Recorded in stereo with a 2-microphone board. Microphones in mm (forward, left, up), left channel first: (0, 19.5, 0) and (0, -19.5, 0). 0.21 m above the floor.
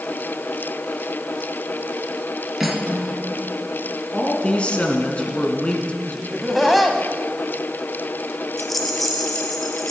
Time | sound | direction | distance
2.6 | cutlery clinking | 5° right (ahead or behind) | 1.9 m
4.1 | a man speaking | 30° left (ahead or behind) | 2.0 m
6.3 | laughter | 5° right (ahead or behind) | 1.1 m
8.6 | a rattle | 5° left (ahead or behind) | 1.1 m